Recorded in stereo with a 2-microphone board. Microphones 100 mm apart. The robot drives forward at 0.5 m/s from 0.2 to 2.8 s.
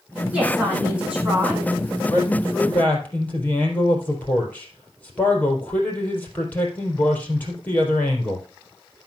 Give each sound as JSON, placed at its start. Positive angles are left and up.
{"t": 0.3, "sound": "a woman speaking", "side_deg": -15, "distance_m": 6.5}
{"t": 2.1, "sound": "a man speaking", "side_deg": 20, "distance_m": 3.0}